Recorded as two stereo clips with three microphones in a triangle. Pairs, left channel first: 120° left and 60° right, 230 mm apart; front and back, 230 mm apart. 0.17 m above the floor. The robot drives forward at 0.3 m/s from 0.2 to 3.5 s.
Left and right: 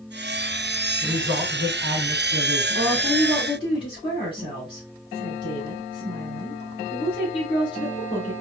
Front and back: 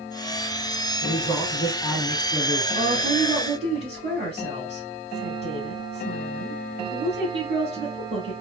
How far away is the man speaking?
About 1.6 m.